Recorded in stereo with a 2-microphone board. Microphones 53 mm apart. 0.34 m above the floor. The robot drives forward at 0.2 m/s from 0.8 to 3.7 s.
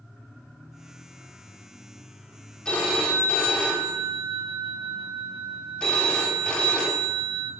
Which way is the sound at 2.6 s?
20° left (ahead or behind).